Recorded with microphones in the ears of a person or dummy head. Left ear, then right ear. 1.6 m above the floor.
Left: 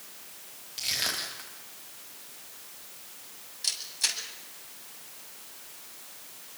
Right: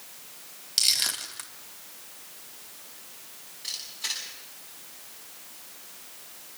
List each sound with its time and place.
0.8 s crushing: 35° right (ahead or behind), 3 m
3.6 s a camera shutter: 75° left (ahead or behind), 7.5 m